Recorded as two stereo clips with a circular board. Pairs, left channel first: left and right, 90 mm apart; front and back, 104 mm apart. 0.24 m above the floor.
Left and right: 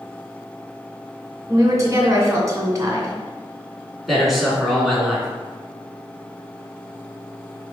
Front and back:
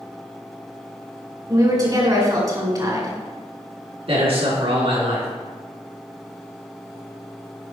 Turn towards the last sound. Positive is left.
turn(degrees=180)